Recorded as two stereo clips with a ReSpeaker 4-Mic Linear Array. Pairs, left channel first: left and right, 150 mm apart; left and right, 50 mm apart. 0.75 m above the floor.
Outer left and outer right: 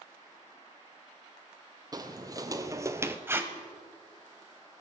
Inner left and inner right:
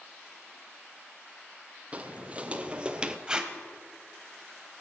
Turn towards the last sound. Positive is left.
turn(degrees=-15)  # may be behind; listen again after turning